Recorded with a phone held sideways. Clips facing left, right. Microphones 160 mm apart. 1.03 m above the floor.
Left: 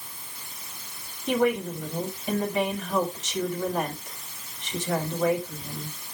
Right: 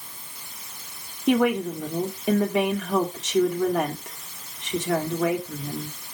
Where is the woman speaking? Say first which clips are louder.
Right 3 dB; 80° right, 2 m.